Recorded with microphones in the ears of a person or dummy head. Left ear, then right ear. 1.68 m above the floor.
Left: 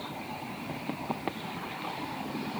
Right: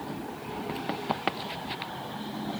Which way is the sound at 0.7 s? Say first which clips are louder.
Right 5 dB; 50° right (ahead or behind).